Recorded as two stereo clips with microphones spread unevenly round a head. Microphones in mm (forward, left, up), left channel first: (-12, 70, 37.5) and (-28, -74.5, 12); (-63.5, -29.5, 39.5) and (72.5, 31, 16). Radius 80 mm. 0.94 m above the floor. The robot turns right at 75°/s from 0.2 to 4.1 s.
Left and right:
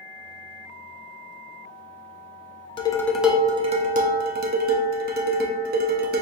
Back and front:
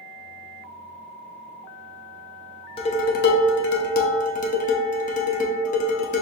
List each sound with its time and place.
2.8 s dishes clattering: 145° left, 0.5 m; by 6.2 s 115° right, 0.5 m